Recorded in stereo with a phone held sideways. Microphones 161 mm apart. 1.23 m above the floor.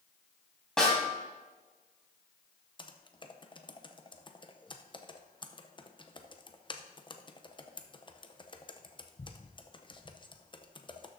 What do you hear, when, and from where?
0.8 s a snare drum: 5° left (ahead or behind), 3 m
2.8 s typing on a keyboard: 35° left (ahead or behind), 0.6 m